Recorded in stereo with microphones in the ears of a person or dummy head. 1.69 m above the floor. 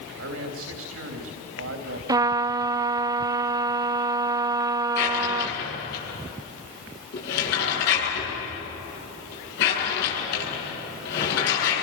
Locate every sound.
0.1 s a man speaking: 85° right, 3 m
2.1 s a trumpet: 30° right (ahead or behind), 0.5 m
5.0 s a drawer: 60° left (ahead or behind), 9 m